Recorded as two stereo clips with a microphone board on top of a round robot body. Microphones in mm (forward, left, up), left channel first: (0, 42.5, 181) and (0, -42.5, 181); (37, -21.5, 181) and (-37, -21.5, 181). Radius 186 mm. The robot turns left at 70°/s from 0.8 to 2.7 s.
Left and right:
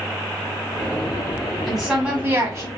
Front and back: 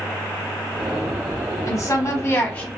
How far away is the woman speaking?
About 1.3 m.